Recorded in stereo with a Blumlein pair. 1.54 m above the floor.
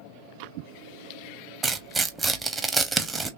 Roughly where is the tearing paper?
Ahead.